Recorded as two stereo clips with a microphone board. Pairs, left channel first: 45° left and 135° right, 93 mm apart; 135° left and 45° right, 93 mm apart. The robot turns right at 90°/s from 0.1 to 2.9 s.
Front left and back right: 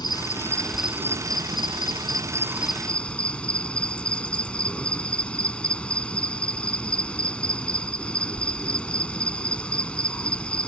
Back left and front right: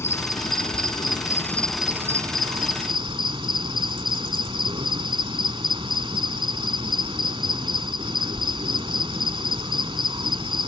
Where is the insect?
75° left; by 10.7 s 30° right.